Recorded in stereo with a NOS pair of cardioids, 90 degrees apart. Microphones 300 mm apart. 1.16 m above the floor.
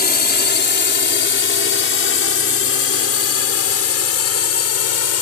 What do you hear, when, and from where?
0.0 s a drone: 30° left; by 5.2 s 60° left